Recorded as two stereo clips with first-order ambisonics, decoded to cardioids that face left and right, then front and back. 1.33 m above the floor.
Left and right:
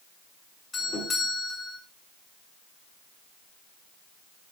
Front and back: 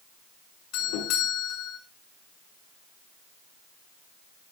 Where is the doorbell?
20° left, 7 m.